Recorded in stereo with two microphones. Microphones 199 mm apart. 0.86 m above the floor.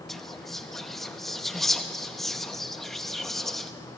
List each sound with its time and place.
0.1 s whispering: centre (ahead or behind), 1.0 m